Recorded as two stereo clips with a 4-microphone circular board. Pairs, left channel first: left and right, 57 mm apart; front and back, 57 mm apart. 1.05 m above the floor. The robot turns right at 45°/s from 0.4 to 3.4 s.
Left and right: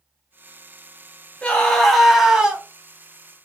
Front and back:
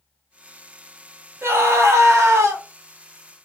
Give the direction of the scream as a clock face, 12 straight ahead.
7 o'clock.